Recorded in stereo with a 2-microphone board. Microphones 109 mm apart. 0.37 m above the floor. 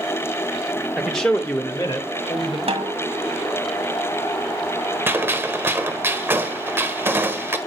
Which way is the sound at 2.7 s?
65° right (ahead or behind).